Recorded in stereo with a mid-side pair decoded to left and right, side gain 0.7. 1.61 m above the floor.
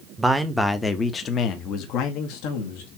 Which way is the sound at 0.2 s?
5° right.